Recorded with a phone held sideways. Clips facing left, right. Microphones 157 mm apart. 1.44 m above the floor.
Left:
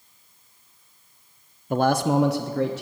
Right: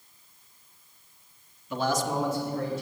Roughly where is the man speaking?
Left.